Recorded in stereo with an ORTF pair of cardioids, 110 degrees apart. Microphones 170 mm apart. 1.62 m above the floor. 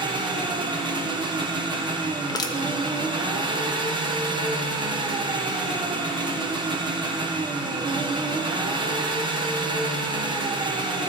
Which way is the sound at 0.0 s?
30° right.